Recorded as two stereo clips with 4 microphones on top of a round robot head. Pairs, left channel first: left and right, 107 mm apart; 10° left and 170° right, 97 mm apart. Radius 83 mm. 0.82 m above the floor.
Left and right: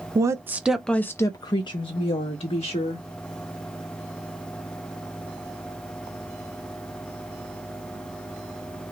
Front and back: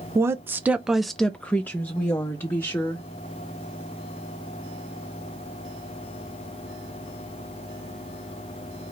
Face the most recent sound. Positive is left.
turn(degrees=70)